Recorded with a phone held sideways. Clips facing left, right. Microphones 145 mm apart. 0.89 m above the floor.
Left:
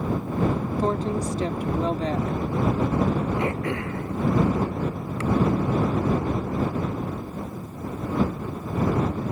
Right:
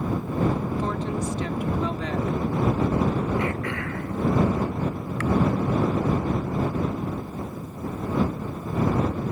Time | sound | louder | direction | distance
0.8 | a woman speaking | left 3 dB | 35° left (ahead or behind) | ?
3.4 | throat clearing | left 1 dB | 25° left (ahead or behind) | ?